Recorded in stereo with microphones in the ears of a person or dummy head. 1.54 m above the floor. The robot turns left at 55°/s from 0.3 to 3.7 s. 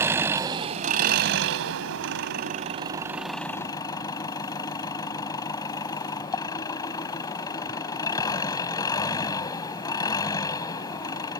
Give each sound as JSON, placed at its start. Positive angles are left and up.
{"t": 0.0, "sound": "an engine running", "azimuth_deg": -15}